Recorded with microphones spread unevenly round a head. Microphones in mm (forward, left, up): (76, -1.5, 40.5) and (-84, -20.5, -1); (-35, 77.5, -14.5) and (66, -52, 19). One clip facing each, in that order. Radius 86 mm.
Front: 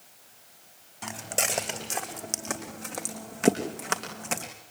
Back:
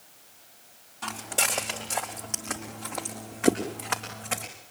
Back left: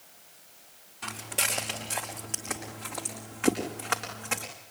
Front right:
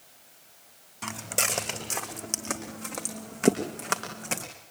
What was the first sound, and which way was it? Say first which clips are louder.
Footsteps: front 1 dB, front right 3 dB; 50° right.